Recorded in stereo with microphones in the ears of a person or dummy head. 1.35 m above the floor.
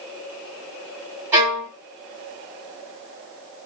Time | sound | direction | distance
1.3 | a violin | 15° right (ahead or behind) | 2.5 m